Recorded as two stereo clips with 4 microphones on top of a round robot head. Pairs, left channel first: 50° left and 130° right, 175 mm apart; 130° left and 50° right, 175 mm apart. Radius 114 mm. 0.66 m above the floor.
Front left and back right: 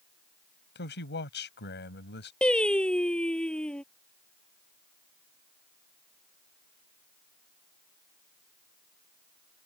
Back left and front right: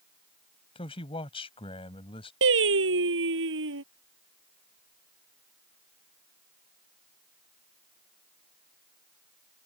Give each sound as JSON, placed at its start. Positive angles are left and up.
{"t": 0.8, "sound": "a man speaking", "azimuth_deg": 70}
{"t": 2.4, "sound": "singing", "azimuth_deg": -40}